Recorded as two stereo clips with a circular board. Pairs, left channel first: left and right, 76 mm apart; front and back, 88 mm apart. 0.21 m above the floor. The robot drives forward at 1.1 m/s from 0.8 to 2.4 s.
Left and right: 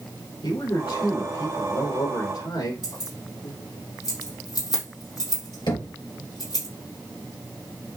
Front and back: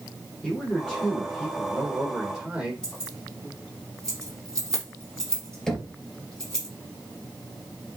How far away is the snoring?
No snoring in this recording.